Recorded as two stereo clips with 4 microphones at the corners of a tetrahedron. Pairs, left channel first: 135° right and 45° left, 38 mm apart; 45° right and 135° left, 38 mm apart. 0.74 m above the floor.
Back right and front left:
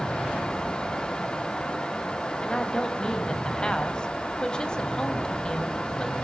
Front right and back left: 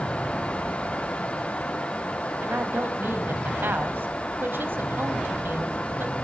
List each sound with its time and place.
2.4 s a woman speaking: 155° left, 3.5 m